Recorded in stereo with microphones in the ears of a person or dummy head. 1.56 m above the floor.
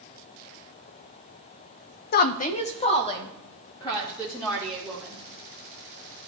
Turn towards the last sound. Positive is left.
turn(degrees=15)  # may be behind; listen again after turning